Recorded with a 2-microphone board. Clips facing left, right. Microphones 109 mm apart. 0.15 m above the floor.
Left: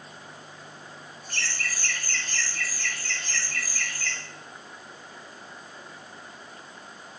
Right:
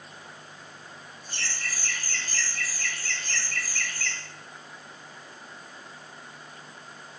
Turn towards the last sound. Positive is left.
turn(degrees=5)  # may be behind; listen again after turning